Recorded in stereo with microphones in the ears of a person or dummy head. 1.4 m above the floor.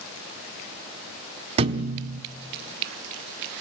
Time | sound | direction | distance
1.6 | a thud | 30° right (ahead or behind) | 1.2 m